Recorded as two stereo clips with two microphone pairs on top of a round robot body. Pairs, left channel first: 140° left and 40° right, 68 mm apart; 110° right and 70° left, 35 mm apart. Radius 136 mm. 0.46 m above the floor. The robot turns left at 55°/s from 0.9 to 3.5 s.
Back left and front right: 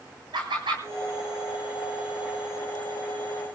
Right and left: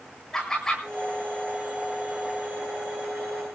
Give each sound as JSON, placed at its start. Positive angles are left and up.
{"t": 0.3, "sound": "laughter", "azimuth_deg": -35, "distance_m": 8.5}